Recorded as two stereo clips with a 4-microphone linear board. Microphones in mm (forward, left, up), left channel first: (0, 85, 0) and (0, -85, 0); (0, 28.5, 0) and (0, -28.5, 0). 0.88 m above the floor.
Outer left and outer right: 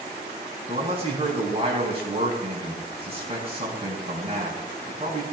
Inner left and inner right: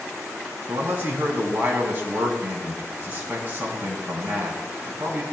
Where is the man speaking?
35° right (ahead or behind), 6 m.